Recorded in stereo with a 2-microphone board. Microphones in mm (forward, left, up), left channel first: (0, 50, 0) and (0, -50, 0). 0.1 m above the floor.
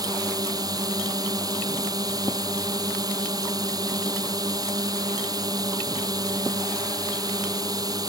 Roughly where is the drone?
Right.